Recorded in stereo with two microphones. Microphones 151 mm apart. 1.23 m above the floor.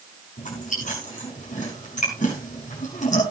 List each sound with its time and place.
0.4 s chewing: 55° left (ahead or behind), 6 m